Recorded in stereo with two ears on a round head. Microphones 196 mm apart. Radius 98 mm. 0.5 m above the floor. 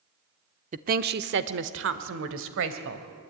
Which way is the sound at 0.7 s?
35° right (ahead or behind).